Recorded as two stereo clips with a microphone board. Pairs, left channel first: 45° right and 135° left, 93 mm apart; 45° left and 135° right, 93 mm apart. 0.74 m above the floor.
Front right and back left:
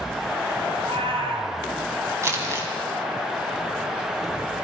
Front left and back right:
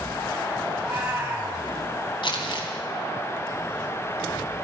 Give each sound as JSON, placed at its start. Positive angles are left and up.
{"t": 0.7, "sound": "a cat meowing", "azimuth_deg": 155, "distance_m": 2.5}
{"t": 2.2, "sound": "crumpling", "azimuth_deg": 75, "distance_m": 2.5}